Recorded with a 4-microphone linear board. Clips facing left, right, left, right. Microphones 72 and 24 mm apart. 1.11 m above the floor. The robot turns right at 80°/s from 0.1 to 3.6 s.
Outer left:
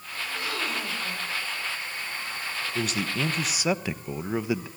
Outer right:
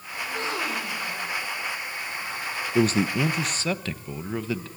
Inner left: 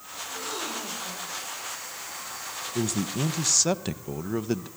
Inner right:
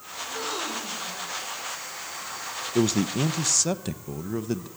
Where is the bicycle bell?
No bicycle bell in this recording.